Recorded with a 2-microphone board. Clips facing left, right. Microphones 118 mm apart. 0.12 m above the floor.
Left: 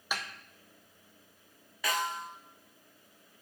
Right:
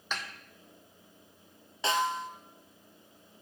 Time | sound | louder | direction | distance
0.1 | a snare drum | left 1 dB | 10° left (ahead or behind) | 1.0 m
1.8 | a snare drum | right 4 dB | 25° right (ahead or behind) | 0.9 m